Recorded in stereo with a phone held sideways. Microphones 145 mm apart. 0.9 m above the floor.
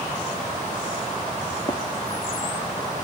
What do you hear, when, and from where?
1.7 s running footsteps: 40° left (ahead or behind), 1.2 m